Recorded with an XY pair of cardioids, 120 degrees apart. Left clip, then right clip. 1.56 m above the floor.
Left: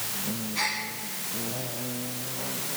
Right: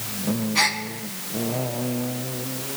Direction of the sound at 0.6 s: 55° right.